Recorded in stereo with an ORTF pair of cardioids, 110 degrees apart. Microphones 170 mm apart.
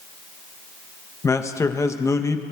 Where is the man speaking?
20° left, 0.8 m.